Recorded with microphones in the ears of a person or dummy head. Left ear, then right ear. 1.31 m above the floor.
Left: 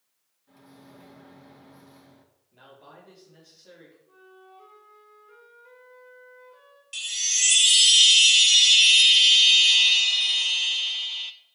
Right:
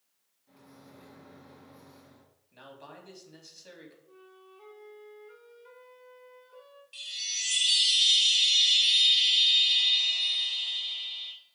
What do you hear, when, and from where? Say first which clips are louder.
0.5 s a microwave: left 3 dB; centre (ahead or behind), 1.7 m
2.5 s a man speaking: right 1 dB; 70° right (ahead or behind), 3.5 m
4.1 s a flute: left 3 dB; 25° right (ahead or behind), 2 m
6.9 s a chime: left 8 dB; 55° left (ahead or behind), 0.5 m